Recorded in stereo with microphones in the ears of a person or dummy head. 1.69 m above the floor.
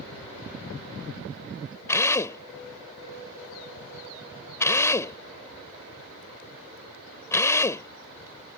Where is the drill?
15° left (ahead or behind).